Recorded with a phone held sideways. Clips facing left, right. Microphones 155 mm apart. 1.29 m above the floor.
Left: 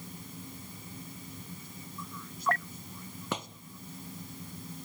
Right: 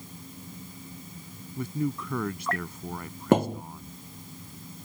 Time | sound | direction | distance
1.6 | a man speaking | 80° right | ?
3.3 | a thud | 55° right (ahead or behind) | ?